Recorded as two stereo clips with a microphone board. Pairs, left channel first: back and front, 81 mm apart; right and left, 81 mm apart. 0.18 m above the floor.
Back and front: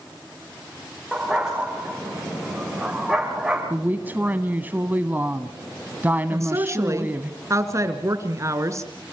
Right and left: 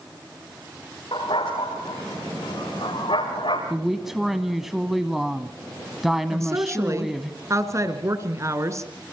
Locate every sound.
1.1 s a dog barking: 85° right, 8.5 m
3.7 s a woman speaking: 10° left, 1.2 m
6.3 s a woman speaking: 45° left, 2.5 m